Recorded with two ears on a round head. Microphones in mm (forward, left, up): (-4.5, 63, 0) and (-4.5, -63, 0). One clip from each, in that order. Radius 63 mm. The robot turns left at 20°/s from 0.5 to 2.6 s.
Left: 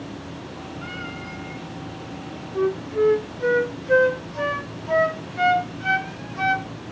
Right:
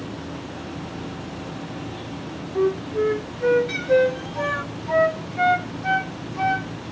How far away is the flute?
About 0.5 m.